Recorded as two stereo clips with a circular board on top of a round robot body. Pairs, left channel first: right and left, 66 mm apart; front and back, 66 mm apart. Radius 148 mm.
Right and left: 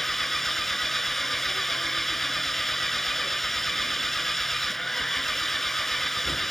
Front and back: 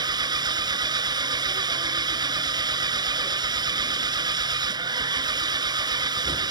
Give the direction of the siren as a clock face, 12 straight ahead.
I don't hear a siren.